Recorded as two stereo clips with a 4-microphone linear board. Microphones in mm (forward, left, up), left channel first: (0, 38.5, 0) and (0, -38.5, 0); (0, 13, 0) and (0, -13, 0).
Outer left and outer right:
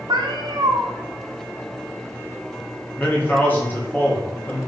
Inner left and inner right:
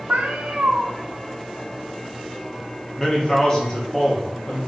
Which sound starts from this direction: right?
A cat meowing, at 0.1 s.